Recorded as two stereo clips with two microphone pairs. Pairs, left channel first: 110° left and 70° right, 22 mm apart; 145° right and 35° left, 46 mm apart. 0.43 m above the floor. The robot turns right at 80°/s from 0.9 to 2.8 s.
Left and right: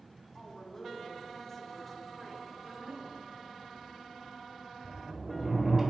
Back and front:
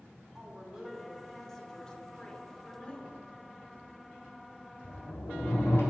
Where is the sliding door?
145° right, 1.9 m.